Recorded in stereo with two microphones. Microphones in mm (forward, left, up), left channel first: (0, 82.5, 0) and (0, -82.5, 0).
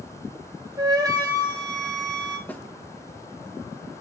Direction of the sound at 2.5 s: 10° left (ahead or behind).